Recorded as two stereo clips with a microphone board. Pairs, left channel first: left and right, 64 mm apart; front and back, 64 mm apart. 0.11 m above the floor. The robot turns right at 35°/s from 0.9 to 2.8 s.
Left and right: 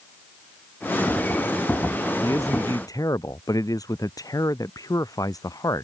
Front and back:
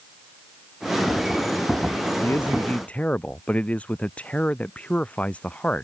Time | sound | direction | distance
2.2 | a man speaking | 45° left | ?